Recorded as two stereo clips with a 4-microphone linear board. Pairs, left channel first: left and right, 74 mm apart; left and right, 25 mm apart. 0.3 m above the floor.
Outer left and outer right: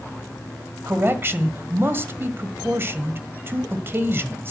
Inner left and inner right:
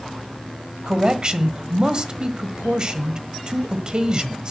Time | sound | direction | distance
0.9 | a man speaking | 30° right (ahead or behind) | 1.5 m